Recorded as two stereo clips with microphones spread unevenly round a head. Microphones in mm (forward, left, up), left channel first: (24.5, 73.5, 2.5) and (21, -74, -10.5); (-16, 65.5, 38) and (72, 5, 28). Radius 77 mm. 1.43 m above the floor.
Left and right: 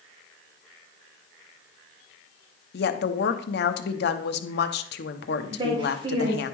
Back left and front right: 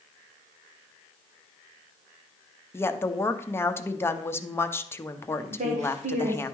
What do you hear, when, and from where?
2.7 s a woman speaking: 75° left, 0.8 m
5.5 s a woman speaking: 35° right, 1.4 m